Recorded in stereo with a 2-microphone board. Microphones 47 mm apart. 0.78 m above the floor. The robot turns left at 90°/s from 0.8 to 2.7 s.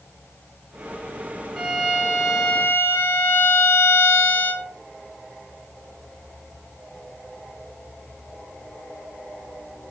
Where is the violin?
Straight behind, 1.0 m; by 4.7 s 75° left, 1.0 m.